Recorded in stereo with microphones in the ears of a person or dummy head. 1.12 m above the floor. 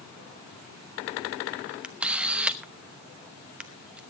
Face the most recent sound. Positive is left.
turn(degrees=-5)  # may be behind; listen again after turning